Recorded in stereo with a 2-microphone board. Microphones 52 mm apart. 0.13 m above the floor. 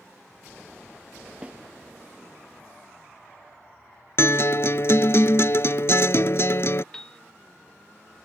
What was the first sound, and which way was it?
A snare drum, 25° right (ahead or behind).